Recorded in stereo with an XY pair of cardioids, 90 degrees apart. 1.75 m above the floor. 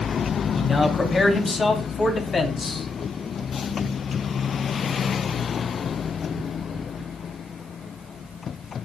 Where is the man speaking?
35° left, 4 m; by 2.9 s 45° left, 5 m.